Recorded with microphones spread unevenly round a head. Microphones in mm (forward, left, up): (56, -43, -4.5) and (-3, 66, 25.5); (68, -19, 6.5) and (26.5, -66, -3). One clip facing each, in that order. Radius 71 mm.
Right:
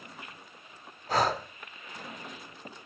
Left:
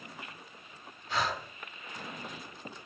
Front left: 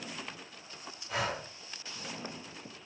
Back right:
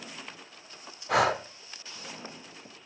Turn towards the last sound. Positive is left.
turn(degrees=-125)